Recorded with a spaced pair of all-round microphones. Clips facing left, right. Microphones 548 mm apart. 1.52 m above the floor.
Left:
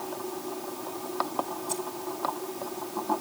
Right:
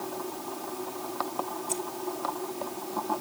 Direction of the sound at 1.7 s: 60° left (ahead or behind).